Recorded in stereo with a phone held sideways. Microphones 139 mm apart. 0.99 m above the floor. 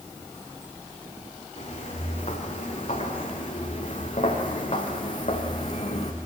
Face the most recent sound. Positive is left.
turn(degrees=50)  # may be behind; listen again after turning